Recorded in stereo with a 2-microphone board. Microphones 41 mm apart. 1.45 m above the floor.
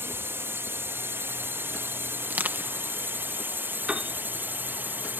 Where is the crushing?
45° right (ahead or behind).